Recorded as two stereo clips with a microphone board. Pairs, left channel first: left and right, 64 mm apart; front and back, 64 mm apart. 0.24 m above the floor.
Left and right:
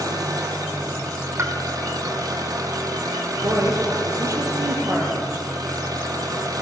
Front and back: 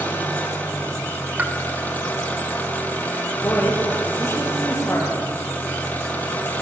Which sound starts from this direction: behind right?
A pop, at 1.4 s.